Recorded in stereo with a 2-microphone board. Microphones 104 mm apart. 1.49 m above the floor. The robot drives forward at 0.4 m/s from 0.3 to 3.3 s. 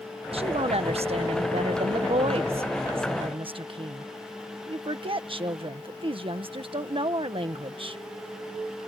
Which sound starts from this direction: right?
A woman speaking, at 0.3 s.